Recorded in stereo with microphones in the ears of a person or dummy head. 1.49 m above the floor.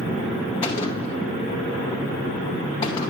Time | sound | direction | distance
0.6 | a gunshot | 30° left (ahead or behind) | 0.8 m